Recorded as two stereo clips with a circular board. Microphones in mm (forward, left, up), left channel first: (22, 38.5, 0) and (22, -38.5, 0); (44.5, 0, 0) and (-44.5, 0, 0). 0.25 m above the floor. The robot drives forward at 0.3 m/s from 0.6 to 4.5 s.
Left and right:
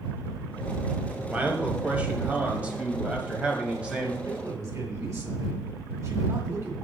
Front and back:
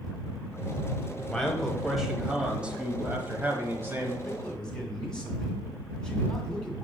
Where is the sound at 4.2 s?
75° right, 2 m.